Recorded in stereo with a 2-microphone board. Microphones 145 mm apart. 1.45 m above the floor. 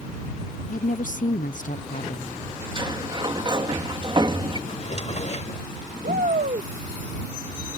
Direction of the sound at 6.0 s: 75° right (ahead or behind).